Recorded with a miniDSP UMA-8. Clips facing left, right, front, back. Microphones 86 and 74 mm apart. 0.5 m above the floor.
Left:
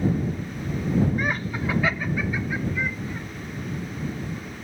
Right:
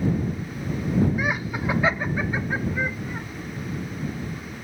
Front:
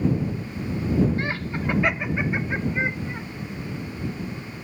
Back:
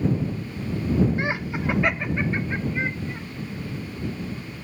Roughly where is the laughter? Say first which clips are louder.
Right 1 dB, back 1 dB; behind.